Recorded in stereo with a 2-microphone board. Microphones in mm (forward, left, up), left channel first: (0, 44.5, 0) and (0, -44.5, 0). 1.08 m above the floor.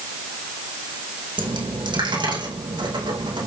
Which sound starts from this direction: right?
A dropped coin, at 1.4 s.